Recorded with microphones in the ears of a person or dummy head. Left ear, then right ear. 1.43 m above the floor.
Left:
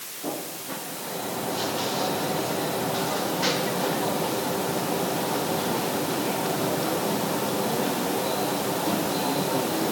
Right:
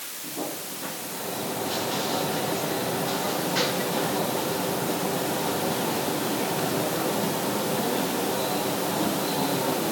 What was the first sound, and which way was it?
Only background noise.